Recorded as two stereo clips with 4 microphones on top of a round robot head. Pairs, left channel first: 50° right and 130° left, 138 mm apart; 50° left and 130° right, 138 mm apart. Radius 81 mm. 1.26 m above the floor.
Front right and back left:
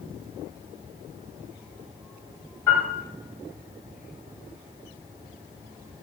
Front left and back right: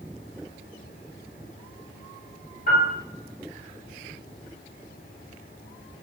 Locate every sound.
2.7 s a piano: 20° left, 1.9 m